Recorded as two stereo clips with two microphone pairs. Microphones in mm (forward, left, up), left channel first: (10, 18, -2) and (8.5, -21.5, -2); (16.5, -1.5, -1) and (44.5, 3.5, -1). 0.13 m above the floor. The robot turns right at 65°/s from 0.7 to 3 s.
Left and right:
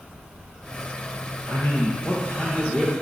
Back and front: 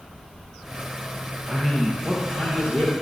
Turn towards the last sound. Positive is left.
turn(degrees=-170)